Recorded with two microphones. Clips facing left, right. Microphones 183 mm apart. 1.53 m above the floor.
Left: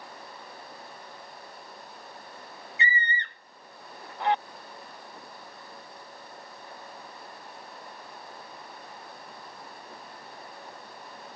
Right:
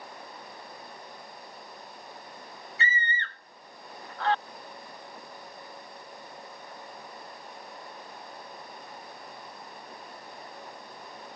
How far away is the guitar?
No guitar in this recording.